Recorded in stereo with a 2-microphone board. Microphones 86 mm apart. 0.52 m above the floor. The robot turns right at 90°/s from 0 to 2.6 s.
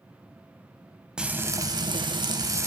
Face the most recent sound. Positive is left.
turn(degrees=-40)